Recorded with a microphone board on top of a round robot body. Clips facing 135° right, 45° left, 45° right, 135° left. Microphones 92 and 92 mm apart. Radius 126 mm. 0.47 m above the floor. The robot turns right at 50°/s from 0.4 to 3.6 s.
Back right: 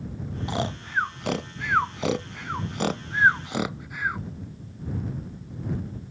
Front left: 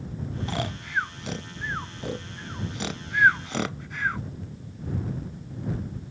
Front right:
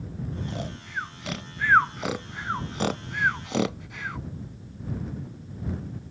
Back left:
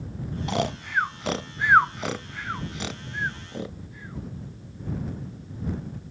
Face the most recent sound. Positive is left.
turn(degrees=-55)